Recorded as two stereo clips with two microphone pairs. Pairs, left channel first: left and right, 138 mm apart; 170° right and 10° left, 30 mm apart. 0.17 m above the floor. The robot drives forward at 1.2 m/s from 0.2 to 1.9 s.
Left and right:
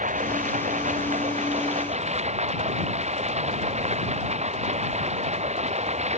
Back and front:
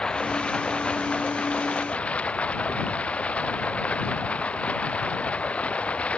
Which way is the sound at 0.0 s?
105° right.